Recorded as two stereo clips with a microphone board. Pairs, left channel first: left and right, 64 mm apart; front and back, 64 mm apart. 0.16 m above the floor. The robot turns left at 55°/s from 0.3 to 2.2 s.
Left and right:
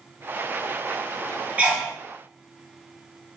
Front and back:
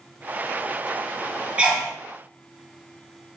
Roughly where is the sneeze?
Behind right.